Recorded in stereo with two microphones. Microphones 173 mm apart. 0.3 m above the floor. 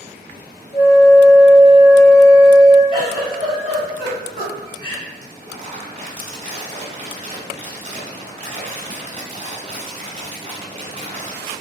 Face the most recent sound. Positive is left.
turn(degrees=-35)  # may be behind; listen again after turning